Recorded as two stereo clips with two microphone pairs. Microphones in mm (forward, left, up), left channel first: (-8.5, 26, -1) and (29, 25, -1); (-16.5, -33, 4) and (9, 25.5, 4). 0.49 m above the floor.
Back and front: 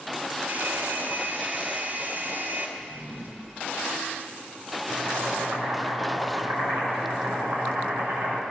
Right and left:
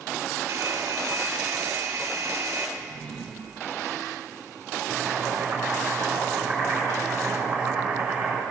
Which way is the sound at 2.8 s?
30° right.